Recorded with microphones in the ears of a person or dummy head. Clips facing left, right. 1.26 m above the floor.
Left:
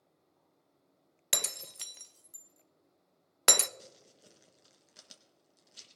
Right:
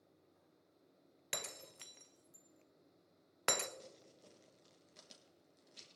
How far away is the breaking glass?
About 0.5 m.